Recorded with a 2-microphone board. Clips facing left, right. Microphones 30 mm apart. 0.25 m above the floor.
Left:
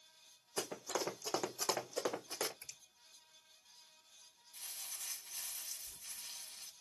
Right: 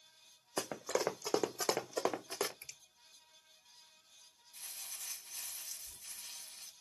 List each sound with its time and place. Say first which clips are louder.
0.6 s running footsteps: right 4 dB; 50° right (ahead or behind), 1.1 m; by 2.5 s 30° right (ahead or behind), 1.3 m
2.6 s a finger snap: right 2 dB; 35° right (ahead or behind), 1.9 m
4.5 s crumpling: even; 5° left (ahead or behind), 1.1 m